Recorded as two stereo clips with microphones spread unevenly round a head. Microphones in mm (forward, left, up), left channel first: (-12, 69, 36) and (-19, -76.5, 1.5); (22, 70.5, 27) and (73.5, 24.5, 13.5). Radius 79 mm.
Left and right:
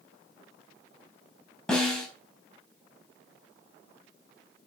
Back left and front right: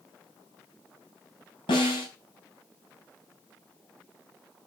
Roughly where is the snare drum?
Behind.